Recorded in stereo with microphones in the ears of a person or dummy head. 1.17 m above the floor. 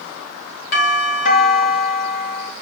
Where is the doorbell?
65° left (ahead or behind), 3 m.